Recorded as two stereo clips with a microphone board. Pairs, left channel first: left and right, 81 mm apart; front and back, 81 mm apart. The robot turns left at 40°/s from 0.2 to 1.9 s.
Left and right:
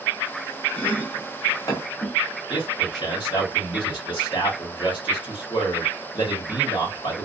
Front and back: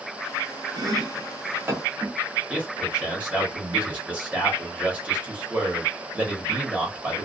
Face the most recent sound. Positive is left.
turn(degrees=100)